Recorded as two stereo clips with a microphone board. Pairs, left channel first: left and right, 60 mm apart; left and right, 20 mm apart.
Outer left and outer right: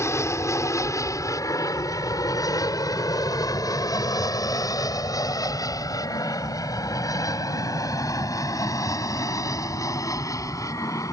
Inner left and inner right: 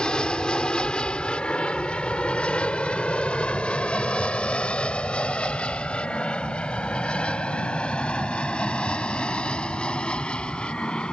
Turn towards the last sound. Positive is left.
turn(degrees=60)  # may be behind; listen again after turning